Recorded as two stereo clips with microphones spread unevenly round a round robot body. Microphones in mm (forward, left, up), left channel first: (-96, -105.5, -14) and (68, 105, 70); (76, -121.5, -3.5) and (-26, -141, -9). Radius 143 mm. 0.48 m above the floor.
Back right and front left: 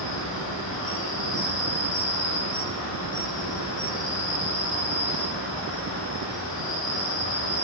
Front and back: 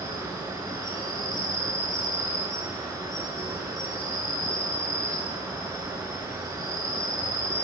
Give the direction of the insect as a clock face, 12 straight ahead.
4 o'clock.